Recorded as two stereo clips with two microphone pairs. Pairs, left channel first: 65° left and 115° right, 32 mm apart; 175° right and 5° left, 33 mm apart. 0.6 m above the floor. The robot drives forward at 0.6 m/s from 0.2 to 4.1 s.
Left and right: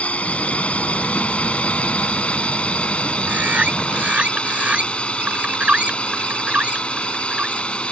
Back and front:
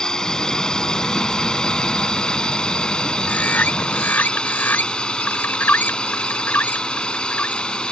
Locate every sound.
0.0 s a drone: 110° left; by 7.9 s 120° left
3.3 s a bird: 145° right; by 7.7 s 160° right